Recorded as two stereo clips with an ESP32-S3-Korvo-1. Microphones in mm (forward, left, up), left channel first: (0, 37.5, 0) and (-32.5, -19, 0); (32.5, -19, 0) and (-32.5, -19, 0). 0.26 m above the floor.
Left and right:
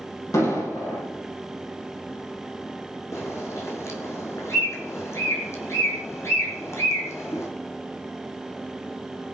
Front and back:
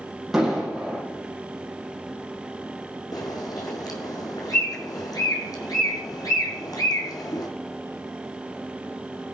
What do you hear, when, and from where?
0.3 s an explosion: 95° left, 7 m
3.1 s a bird: 15° left, 2.5 m